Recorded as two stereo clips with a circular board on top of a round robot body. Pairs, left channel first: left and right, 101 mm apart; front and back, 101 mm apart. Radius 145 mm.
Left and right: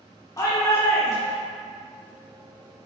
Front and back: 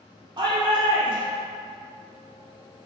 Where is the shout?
140° left, 0.9 m.